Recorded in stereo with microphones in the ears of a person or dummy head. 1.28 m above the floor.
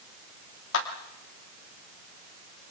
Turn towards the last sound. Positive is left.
turn(degrees=80)